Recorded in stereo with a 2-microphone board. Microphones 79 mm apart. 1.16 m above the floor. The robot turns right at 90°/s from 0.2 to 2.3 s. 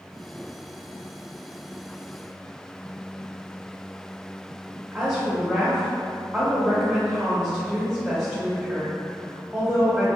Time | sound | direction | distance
4.9 | a woman speaking | 10° right (ahead or behind) | 0.9 m